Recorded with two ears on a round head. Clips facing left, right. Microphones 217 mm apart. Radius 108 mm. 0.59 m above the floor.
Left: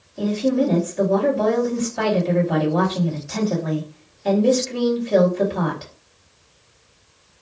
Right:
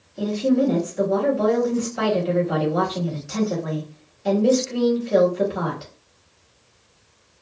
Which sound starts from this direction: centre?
A woman speaking, at 0.2 s.